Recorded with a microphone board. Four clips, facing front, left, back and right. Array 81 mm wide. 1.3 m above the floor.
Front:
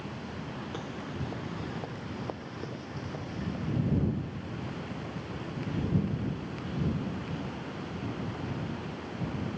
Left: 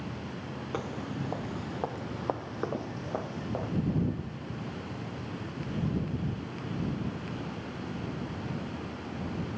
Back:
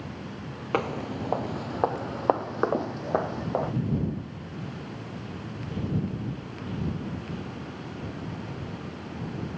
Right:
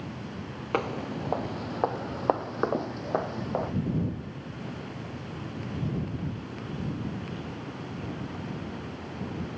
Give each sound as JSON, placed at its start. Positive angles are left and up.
{"t": 0.7, "sound": "footsteps", "azimuth_deg": -145}